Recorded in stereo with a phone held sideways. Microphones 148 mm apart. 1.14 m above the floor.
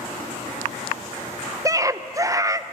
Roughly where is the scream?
Right.